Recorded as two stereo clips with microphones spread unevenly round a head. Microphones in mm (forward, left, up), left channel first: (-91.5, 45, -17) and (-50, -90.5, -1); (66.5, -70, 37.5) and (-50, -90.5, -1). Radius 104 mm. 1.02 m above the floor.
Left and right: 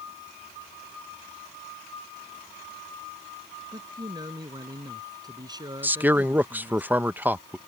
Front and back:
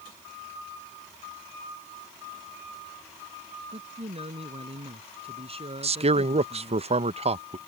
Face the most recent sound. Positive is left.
turn(degrees=-155)